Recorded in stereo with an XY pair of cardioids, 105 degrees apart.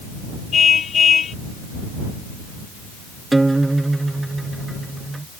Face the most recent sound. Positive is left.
turn(degrees=-15)